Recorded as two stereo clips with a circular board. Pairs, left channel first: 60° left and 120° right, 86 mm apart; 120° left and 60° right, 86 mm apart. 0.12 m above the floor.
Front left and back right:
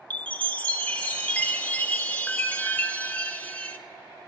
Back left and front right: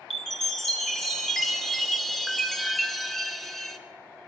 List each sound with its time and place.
0.1 s a chime: 45° left, 0.9 m